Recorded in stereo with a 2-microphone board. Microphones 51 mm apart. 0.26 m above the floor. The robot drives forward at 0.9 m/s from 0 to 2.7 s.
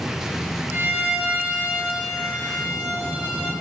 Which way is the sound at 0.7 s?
45° right (ahead or behind).